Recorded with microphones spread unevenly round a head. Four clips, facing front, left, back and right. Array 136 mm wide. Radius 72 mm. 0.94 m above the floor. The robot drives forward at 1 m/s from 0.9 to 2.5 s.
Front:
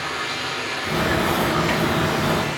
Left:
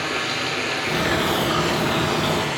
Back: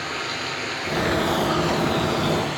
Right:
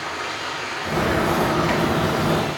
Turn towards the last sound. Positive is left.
turn(degrees=110)